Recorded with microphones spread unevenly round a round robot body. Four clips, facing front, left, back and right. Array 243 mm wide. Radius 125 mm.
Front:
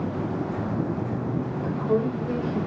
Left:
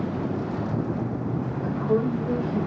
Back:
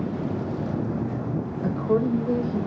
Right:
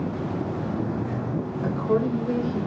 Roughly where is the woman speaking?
Behind right.